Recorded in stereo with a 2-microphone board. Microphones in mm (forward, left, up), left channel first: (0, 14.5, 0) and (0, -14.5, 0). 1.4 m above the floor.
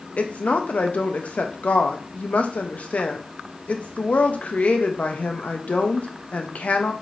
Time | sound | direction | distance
0.2 | a woman speaking | 60° left (ahead or behind) | 0.7 m